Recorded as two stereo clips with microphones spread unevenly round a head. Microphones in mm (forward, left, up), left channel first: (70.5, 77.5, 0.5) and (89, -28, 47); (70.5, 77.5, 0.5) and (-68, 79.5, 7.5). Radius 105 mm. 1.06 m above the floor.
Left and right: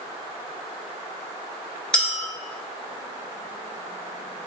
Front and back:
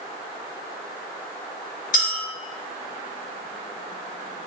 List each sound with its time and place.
1.9 s a clink: 5° left, 0.8 m